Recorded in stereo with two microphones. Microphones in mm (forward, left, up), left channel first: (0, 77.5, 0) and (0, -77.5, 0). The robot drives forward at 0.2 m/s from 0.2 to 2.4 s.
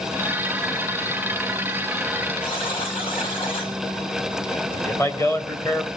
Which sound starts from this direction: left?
A buzzer, at 2.4 s.